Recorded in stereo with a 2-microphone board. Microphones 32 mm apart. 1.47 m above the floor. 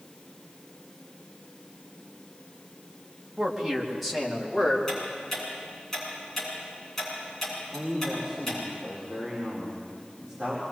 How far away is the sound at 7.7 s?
About 4.5 m.